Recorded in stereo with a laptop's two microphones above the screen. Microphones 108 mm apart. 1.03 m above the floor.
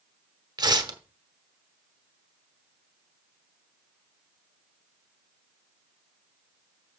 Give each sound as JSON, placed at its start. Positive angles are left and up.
{"t": 0.6, "sound": "tearing paper", "side_deg": -40, "distance_m": 1.0}